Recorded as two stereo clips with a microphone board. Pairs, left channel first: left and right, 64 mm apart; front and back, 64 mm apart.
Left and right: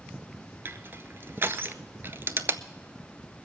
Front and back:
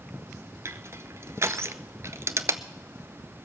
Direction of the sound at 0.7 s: 140° right.